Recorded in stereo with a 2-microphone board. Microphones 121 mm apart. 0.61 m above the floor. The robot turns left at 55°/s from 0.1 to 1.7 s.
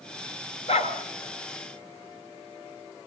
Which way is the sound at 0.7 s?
60° left (ahead or behind).